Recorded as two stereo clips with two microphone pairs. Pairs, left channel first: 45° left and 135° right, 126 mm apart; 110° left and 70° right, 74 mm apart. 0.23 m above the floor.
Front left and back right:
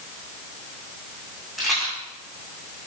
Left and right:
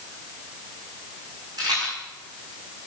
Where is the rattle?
45° right, 7.5 m.